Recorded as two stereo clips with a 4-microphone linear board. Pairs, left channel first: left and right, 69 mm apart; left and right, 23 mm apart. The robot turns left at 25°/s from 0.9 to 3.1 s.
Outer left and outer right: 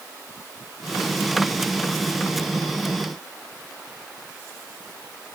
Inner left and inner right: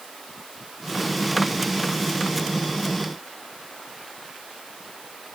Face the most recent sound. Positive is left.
No sound to turn to.